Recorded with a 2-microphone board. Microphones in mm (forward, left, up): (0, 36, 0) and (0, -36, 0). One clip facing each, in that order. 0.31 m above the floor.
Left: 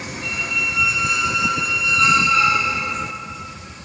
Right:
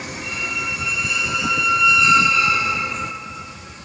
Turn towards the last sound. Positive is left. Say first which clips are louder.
# left 2 dB
turn(degrees=55)  # may be behind; listen again after turning